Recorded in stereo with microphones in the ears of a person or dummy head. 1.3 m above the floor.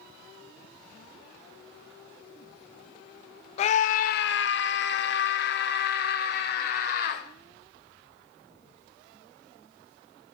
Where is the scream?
40° left (ahead or behind), 0.7 m; by 7.2 s 50° left (ahead or behind), 2 m.